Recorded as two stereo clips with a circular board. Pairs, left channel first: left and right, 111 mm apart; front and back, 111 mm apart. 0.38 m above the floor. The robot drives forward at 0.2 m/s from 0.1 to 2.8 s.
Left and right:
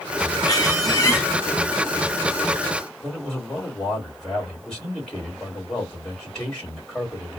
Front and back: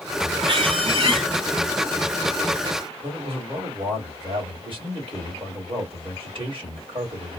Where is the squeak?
145° left, 1.5 m; by 1.3 s 150° left, 1.6 m.